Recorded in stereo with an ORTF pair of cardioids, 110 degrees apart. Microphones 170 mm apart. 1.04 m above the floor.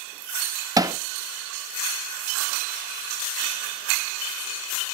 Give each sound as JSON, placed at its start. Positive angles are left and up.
{"t": 0.8, "sound": "hammering", "azimuth_deg": -20, "distance_m": 0.7}